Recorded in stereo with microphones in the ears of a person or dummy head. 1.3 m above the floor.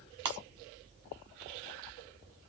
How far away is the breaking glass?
About 1.0 m.